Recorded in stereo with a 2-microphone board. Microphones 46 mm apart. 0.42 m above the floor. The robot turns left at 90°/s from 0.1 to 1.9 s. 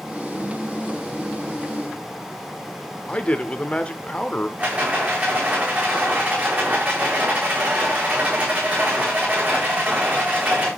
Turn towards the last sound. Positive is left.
turn(degrees=-35)  # may be behind; listen again after turning